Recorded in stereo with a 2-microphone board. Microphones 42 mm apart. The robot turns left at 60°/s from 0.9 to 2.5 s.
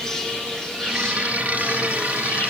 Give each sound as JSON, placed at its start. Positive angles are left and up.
{"t": 0.0, "sound": "an insect", "azimuth_deg": 170, "distance_m": 3.5}